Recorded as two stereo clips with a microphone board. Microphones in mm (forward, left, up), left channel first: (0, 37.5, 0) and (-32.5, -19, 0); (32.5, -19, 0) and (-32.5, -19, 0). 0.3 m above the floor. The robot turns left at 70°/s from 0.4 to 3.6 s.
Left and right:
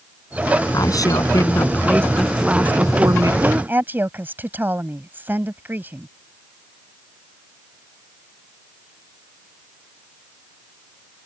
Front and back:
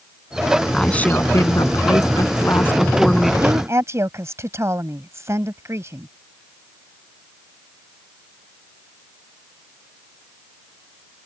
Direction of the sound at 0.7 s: 80° left.